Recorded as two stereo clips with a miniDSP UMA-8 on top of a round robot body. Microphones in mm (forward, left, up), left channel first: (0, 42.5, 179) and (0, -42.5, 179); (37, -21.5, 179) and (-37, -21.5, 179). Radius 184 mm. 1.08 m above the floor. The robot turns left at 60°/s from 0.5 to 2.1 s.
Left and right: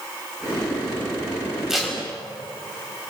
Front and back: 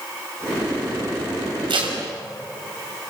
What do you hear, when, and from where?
1.7 s tape being pulled: 175° right, 5 m; by 2.0 s 165° left, 5 m